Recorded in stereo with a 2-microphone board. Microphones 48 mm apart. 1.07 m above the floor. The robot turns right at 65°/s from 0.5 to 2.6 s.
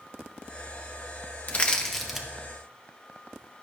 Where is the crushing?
35° left (ahead or behind), 1.1 m; by 2.3 s 15° right (ahead or behind), 1.1 m.